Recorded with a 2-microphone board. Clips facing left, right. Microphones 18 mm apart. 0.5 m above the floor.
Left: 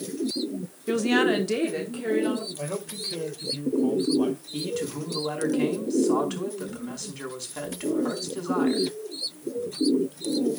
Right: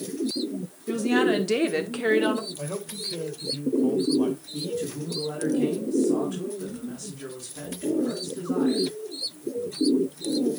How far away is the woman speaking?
About 1.3 m.